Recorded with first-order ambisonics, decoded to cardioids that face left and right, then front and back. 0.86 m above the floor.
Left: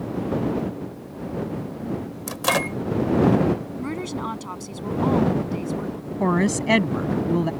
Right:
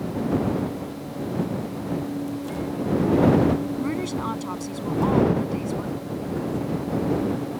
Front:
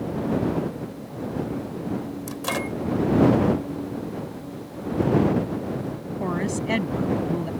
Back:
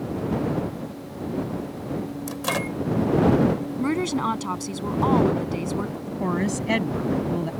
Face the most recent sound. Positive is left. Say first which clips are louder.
# left 9 dB, back 1 dB
turn(degrees=100)